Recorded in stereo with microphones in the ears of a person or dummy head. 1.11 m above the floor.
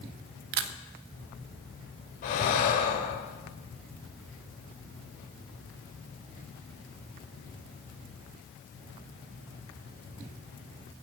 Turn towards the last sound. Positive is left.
turn(degrees=45)  # may be behind; listen again after turning